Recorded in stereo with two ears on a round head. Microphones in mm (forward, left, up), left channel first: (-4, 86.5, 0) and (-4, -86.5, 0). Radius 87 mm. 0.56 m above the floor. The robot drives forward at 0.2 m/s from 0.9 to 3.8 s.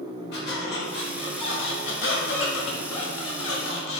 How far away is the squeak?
About 1.0 m.